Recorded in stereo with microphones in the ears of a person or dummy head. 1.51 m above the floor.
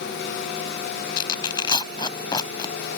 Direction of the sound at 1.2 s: 20° left (ahead or behind).